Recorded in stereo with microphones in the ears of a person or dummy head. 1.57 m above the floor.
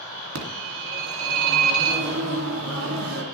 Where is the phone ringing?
80° right, 2.5 m.